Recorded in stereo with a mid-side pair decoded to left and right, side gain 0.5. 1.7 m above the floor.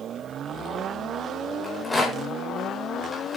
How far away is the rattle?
About 5 m.